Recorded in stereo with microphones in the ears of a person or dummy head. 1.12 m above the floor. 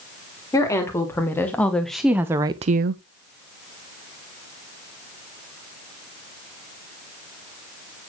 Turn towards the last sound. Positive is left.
turn(degrees=-60)  # may be behind; listen again after turning